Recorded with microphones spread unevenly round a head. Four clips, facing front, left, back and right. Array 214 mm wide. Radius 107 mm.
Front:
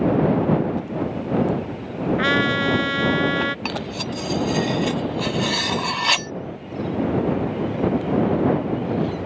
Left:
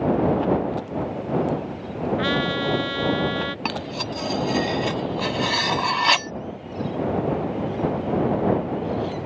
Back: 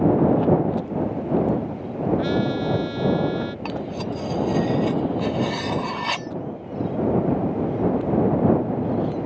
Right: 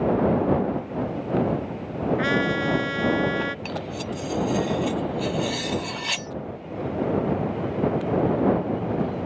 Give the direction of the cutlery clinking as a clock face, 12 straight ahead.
10 o'clock.